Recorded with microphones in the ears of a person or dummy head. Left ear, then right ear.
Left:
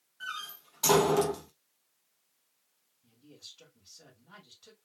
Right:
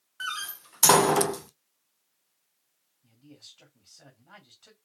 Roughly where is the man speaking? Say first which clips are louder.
Even; centre.